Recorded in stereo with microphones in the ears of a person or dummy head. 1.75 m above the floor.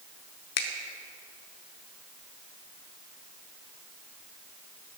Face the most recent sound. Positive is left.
turn(degrees=60)  # may be behind; listen again after turning